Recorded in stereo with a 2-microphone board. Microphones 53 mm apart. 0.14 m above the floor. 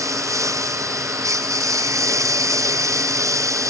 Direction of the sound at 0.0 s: 80° right.